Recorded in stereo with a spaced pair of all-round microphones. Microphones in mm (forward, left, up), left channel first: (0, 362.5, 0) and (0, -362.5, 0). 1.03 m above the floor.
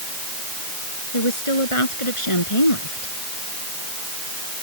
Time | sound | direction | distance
1.1 | a woman speaking | 45° left (ahead or behind) | ?